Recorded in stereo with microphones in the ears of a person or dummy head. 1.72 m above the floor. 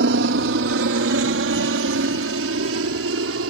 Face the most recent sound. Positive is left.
turn(degrees=-75)  # may be behind; listen again after turning